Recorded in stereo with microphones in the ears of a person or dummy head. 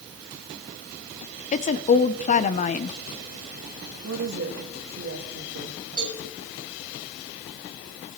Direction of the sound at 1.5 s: 35° left (ahead or behind).